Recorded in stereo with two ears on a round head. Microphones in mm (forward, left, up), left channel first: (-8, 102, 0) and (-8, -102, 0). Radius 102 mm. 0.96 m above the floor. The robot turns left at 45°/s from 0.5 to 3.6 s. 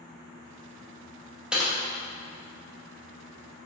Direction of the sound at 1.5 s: 5° right (ahead or behind).